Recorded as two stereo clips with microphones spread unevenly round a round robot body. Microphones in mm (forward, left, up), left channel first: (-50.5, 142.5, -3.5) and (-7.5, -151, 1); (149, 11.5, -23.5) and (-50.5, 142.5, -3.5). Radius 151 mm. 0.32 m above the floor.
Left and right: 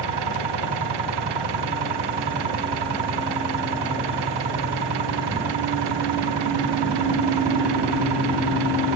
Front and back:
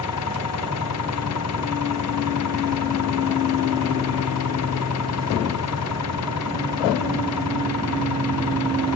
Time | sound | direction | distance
0.0 | an engine running | 80° right | ?